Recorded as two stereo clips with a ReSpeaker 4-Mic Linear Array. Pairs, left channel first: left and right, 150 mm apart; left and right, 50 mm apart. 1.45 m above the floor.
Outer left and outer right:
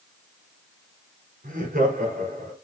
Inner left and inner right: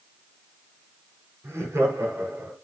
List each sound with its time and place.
1.4 s laughter: 85° right, 5 m; by 2.5 s 75° right (ahead or behind), 4.5 m